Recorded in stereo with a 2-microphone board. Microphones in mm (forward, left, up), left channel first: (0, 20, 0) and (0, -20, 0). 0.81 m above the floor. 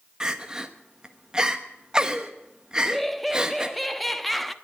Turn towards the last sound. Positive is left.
turn(degrees=0)  # may be behind; listen again after turning